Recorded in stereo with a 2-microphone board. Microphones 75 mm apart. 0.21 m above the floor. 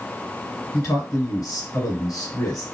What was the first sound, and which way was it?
A man speaking, 50° left (ahead or behind).